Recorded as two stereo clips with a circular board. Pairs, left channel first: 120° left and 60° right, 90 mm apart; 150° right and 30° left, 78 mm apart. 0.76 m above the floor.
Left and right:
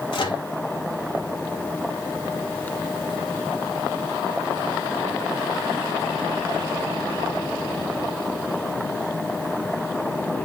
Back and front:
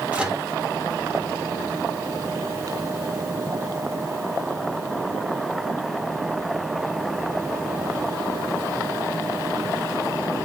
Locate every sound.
0.1 s a microwave: 105° left, 1.6 m